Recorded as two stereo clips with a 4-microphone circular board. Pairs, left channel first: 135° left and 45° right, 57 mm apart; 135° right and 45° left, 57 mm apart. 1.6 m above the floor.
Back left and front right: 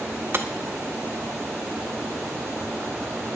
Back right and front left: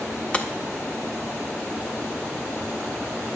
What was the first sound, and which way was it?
Breaking glass, 75° right.